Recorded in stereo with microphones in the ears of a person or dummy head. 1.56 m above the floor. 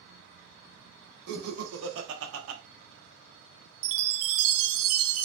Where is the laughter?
60° right (ahead or behind), 1.8 m; by 2.6 s 90° right, 1.0 m.